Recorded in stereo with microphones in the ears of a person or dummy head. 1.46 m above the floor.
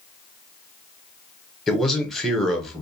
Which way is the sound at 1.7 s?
Centre (ahead or behind).